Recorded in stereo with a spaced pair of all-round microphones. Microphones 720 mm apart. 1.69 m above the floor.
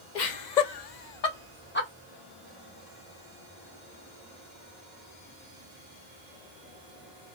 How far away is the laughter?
About 1.0 m.